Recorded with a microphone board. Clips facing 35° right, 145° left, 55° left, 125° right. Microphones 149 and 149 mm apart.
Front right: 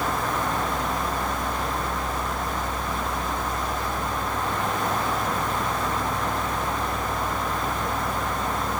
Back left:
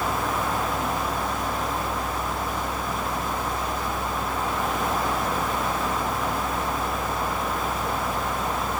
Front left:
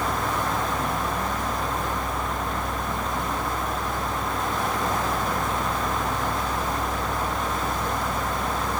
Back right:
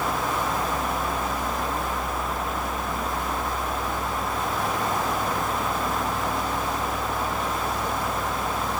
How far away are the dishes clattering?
No dishes clattering in this recording.